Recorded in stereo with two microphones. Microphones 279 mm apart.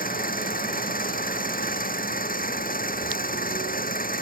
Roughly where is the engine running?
Left.